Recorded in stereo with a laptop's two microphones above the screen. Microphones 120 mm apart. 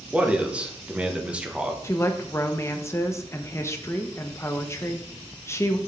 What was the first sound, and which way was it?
A man speaking, 10° right (ahead or behind).